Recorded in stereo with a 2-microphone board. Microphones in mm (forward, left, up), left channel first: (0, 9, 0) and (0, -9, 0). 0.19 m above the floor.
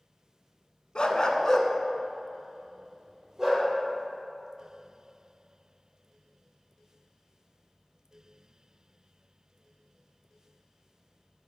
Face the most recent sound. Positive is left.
turn(degrees=-15)  # may be behind; listen again after turning